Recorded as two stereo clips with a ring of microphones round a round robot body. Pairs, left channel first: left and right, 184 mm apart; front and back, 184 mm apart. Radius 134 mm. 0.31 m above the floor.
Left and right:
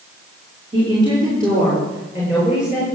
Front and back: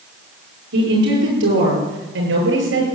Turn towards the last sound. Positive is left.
turn(degrees=-175)